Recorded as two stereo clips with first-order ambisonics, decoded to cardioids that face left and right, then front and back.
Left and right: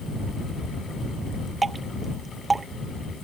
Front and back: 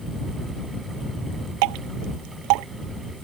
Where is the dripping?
165° right.